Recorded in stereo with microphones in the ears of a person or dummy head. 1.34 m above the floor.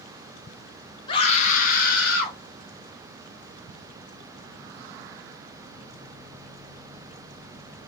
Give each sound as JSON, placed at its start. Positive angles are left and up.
{"t": 1.1, "sound": "a scream", "side_deg": 30, "distance_m": 0.8}